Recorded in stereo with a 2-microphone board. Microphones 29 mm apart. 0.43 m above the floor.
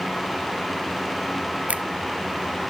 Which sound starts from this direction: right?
A finger snap, at 1.7 s.